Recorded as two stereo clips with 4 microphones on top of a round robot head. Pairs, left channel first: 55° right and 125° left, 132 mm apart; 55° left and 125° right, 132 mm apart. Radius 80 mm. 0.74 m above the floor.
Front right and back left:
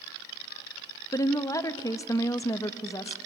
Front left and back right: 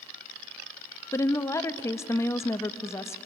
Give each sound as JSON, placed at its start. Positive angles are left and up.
{"t": 1.1, "sound": "a woman speaking", "azimuth_deg": 0, "distance_m": 0.8}